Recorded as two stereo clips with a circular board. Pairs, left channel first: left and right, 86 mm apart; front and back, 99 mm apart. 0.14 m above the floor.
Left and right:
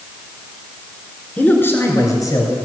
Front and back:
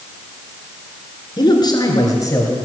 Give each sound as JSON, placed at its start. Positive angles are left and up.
{"t": 1.4, "sound": "a man speaking", "azimuth_deg": 20, "distance_m": 2.5}